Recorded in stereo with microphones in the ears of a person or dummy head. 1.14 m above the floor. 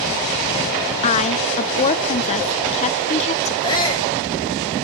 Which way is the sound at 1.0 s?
35° left (ahead or behind).